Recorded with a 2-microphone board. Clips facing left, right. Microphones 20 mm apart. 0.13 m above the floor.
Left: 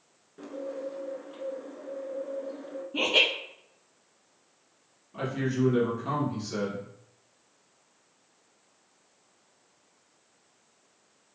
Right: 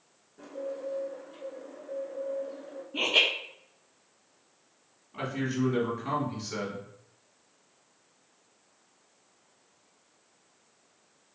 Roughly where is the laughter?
Centre.